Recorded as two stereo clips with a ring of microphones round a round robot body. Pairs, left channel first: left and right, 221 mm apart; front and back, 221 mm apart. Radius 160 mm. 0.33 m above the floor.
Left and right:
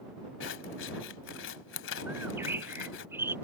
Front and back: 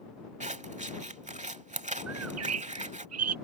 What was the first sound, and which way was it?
Scissors, 125° left.